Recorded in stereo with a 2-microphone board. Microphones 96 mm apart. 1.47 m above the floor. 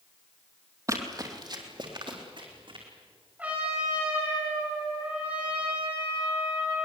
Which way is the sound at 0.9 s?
35° right (ahead or behind).